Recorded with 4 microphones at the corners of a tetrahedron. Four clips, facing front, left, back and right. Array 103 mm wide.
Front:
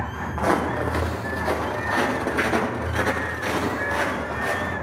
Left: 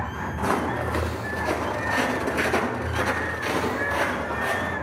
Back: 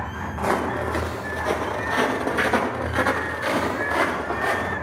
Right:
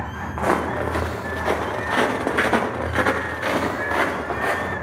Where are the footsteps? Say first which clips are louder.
Right 4 dB, front 1 dB; 60° right, 5 m; by 4.7 s 115° right, 7.5 m.